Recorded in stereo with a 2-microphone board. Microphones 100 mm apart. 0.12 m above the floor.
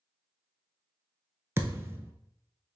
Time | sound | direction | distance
1.6 | a thud | 25° right (ahead or behind) | 0.6 m